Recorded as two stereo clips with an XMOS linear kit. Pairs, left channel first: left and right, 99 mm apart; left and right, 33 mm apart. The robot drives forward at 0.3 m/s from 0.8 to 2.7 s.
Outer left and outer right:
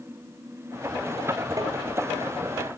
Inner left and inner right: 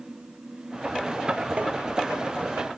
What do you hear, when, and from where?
1.6 s tapping: 35° right (ahead or behind), 2.0 m